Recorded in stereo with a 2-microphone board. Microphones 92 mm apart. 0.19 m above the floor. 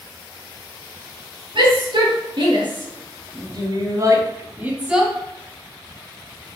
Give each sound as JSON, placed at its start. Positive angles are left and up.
{"t": 1.6, "sound": "a shout", "side_deg": -60, "distance_m": 4.0}